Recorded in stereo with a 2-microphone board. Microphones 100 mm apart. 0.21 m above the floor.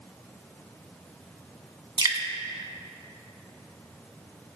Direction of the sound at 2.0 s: 40° right (ahead or behind).